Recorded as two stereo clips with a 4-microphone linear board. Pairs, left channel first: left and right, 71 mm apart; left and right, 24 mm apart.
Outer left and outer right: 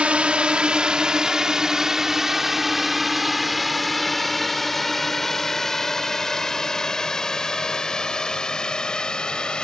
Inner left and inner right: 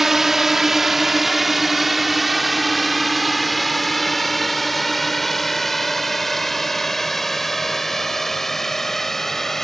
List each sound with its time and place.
0.0 s a drone: 15° right (ahead or behind); by 9.6 s 15° left (ahead or behind)